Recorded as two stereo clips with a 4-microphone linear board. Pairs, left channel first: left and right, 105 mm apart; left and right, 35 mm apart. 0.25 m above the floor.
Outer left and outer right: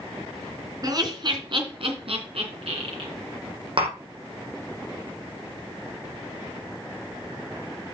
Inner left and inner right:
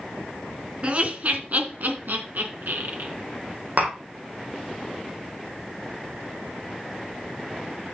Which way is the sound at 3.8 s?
55° right (ahead or behind).